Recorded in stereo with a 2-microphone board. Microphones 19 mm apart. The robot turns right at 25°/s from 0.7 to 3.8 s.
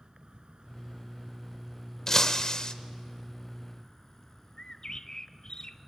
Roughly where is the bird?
Left.